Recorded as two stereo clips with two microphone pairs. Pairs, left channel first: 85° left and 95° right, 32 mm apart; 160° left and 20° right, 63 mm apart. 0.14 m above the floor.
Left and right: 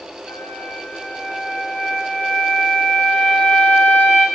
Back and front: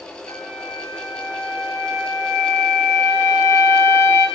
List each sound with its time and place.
0.3 s a flute: 125° left, 1.1 m